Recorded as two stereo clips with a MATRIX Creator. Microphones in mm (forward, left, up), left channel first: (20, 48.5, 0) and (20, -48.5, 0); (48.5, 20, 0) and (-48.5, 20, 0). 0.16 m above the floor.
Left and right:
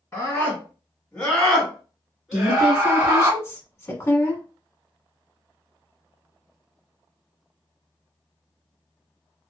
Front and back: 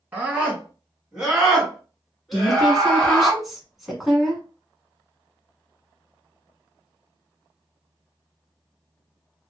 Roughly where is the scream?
Behind left.